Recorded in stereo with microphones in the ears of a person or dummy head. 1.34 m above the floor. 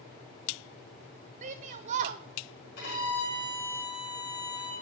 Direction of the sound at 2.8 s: 60° left (ahead or behind).